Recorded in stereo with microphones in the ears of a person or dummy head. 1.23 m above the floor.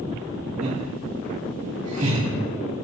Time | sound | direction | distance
0.6 | laughter | 35° right (ahead or behind) | 2.5 m